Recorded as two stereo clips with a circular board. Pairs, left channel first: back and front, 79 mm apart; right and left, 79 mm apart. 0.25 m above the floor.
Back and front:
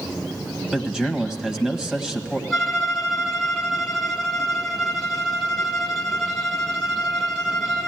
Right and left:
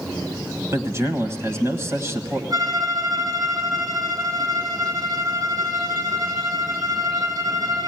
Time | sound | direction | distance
0.7 | a man speaking | 75° left | 1.5 m
2.5 | a violin | 95° left | 2 m